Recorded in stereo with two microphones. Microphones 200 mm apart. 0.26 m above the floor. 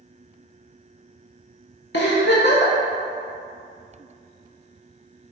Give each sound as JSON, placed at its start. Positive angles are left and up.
{"t": 1.9, "sound": "a giggle", "side_deg": 60, "distance_m": 0.6}